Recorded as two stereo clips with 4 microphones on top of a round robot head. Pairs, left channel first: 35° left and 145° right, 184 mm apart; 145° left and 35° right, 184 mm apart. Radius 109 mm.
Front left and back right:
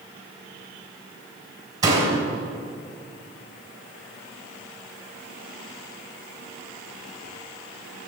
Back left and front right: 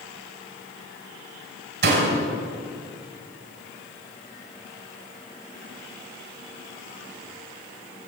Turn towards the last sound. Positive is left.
turn(degrees=-70)